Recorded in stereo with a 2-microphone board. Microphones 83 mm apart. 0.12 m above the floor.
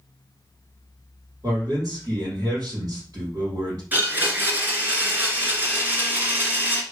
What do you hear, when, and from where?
1.4 s a man speaking: 55° right (ahead or behind), 4 m
3.9 s a blender: 25° right (ahead or behind), 1.8 m